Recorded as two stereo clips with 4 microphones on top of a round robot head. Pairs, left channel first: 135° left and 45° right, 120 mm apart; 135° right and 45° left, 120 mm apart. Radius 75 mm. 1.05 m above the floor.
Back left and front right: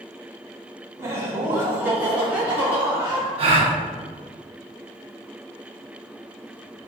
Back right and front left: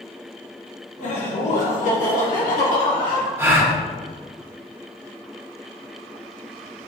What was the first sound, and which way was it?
Laughter, 110° right.